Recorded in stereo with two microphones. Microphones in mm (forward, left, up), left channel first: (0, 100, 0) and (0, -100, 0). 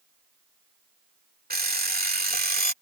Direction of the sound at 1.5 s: 50° right (ahead or behind).